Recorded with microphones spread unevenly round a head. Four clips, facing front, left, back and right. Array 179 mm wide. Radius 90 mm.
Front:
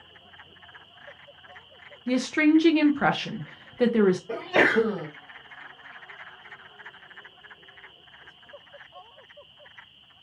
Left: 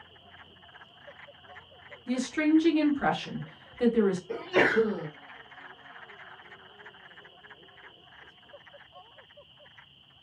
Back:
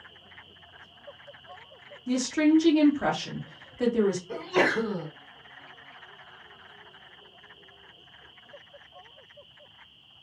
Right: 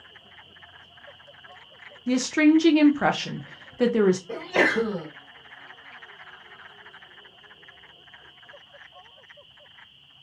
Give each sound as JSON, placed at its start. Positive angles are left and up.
{"t": 2.1, "sound": "a woman speaking", "azimuth_deg": -70, "distance_m": 0.6}
{"t": 4.3, "sound": "a sneeze", "azimuth_deg": -20, "distance_m": 1.5}